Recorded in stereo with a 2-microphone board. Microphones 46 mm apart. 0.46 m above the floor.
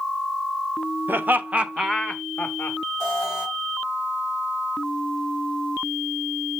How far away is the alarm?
About 4.5 m.